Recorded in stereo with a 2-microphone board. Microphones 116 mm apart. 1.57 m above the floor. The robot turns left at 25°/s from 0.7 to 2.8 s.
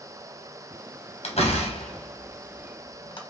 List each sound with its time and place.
1.2 s a door slam: 65° left (ahead or behind), 0.9 m; by 3.2 s 45° left (ahead or behind), 0.9 m